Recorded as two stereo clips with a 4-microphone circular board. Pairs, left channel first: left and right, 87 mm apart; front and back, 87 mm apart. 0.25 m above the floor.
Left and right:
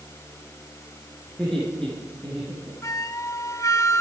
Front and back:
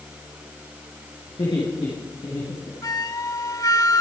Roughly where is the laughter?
Ahead.